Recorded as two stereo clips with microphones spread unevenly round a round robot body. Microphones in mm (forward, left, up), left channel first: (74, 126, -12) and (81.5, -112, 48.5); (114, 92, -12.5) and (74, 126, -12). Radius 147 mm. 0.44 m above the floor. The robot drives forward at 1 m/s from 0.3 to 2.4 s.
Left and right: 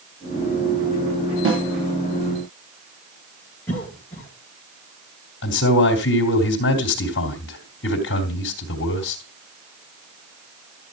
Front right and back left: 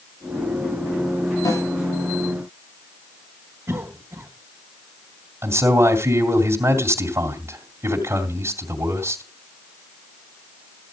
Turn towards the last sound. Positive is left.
turn(degrees=115)